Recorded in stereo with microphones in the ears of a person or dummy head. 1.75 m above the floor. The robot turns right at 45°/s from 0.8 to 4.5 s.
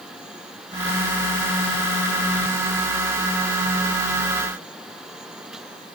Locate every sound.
Only background noise.